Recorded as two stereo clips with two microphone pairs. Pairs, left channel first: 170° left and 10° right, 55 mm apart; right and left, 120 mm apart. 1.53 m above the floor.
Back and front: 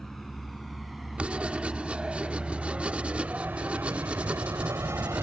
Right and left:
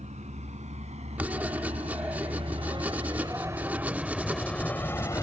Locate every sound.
0.0 s a vehicle: 85° left; by 5.2 s 30° right
1.2 s writing: 30° left